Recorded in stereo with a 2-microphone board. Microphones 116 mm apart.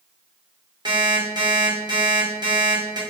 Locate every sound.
0.8 s an alarm clock: 40° right (ahead or behind), 2 m